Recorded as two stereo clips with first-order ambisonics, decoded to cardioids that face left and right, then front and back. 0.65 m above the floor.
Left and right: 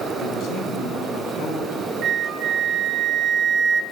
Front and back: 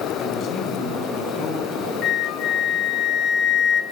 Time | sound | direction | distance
0.2 | a man speaking | 50° left | 5 m
2.0 | a flute | 35° right | 0.5 m